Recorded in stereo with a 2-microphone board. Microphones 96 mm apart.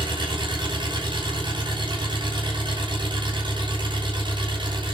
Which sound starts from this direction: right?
An engine running, at 0.0 s.